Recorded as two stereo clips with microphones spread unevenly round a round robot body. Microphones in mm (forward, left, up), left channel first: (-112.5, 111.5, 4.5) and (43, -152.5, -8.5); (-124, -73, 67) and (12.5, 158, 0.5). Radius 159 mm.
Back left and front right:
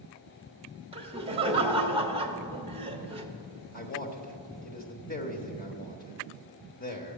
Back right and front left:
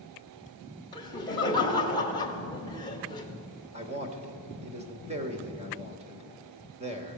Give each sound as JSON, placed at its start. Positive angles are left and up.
{"t": 0.9, "sound": "laughter", "azimuth_deg": -35, "distance_m": 1.0}
{"t": 3.7, "sound": "a man speaking", "azimuth_deg": 70, "distance_m": 1.1}